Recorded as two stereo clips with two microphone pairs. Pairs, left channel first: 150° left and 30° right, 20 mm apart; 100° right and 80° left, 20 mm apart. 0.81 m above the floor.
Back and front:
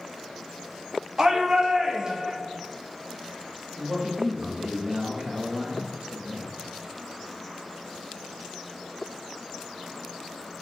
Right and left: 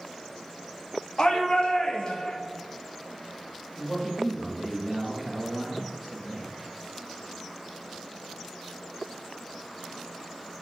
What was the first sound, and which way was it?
A shout, 70° right.